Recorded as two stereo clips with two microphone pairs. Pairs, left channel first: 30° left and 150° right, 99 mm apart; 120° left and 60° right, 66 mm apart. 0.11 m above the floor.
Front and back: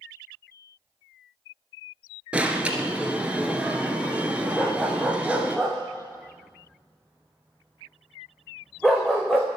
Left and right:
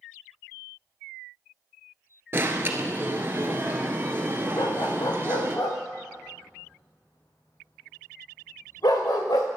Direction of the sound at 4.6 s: 120° left.